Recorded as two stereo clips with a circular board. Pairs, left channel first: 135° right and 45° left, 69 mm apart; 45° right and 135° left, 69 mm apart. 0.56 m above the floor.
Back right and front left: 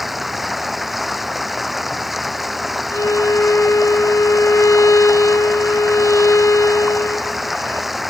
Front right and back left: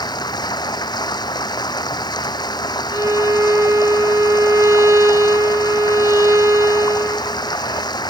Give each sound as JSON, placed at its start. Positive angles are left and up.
{"t": 0.0, "sound": "running water", "azimuth_deg": -45}
{"t": 2.9, "sound": "a violin", "azimuth_deg": 180}